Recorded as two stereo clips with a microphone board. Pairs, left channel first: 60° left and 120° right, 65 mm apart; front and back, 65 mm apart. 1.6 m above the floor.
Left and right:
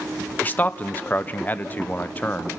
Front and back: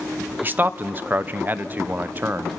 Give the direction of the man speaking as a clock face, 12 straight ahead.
8 o'clock.